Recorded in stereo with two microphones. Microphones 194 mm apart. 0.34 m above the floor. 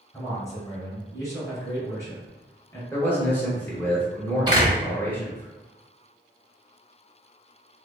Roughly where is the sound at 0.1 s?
Centre.